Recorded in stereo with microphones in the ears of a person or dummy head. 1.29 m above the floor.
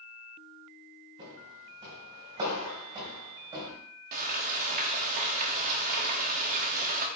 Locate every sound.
1.2 s footsteps: 35° right (ahead or behind), 4.5 m; by 3.7 s 25° right (ahead or behind), 3 m
4.1 s frying: 45° right (ahead or behind), 1.3 m